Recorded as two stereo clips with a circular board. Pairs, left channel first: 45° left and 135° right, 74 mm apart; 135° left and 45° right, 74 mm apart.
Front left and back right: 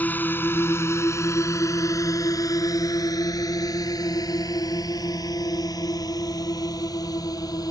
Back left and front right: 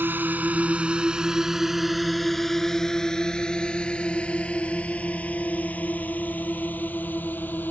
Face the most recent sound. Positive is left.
turn(degrees=70)